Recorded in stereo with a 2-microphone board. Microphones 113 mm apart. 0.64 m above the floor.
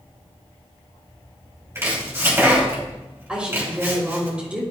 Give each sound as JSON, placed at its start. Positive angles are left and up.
{"t": 1.8, "sound": "chopping", "side_deg": -25, "distance_m": 3.0}
{"t": 3.3, "sound": "a woman speaking", "side_deg": -10, "distance_m": 2.5}